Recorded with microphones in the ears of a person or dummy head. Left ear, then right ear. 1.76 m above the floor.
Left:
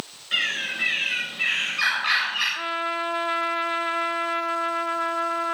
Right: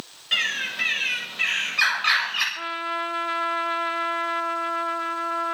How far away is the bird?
About 8 m.